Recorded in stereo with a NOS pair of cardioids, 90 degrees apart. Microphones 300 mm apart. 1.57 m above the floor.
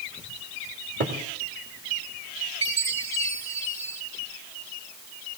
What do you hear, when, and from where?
1.0 s a cupboard door: 35° right, 2.5 m
2.6 s a chime: 60° right, 4 m